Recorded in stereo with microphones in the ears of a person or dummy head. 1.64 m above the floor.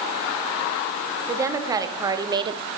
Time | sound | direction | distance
1.3 | a woman speaking | 15° right (ahead or behind) | 1.9 m